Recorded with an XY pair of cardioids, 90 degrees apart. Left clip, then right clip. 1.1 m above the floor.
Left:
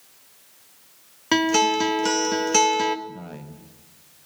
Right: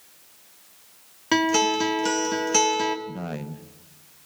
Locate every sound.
1.3 s a guitar: 20° left, 1.1 m
3.1 s a man speaking: 50° right, 0.7 m